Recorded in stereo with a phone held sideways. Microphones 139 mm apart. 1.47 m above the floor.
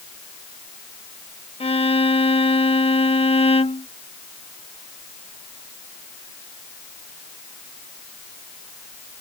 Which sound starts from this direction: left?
A violin, at 1.6 s.